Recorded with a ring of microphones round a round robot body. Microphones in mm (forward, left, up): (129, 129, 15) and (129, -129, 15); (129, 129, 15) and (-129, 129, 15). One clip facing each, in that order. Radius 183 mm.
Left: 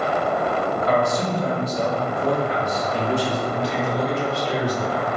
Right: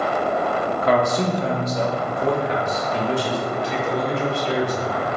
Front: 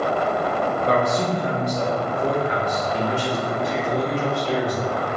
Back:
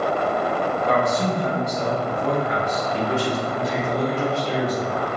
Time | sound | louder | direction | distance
0.8 | a man speaking | right 3 dB, front 1 dB | 70° right | 0.6 m
3.5 | a man speaking | even, even | 65° right | 1.4 m